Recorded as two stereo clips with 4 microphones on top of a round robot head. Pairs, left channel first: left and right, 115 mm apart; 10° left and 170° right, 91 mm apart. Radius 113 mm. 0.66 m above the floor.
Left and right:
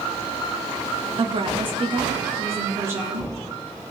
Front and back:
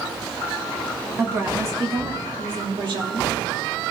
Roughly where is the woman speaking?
Right.